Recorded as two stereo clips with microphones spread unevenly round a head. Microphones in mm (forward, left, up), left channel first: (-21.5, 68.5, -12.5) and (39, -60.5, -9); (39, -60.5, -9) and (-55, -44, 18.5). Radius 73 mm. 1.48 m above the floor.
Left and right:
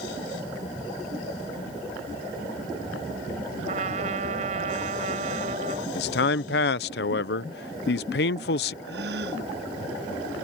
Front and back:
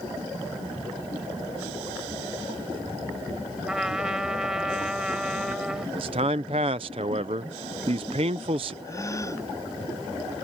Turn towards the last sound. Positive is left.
turn(degrees=-70)